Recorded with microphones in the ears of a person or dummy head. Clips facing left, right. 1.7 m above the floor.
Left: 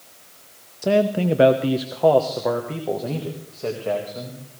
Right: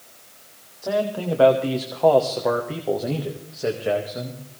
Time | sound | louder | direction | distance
0.8 | a man speaking | left 5 dB | 40° left (ahead or behind) | 0.9 m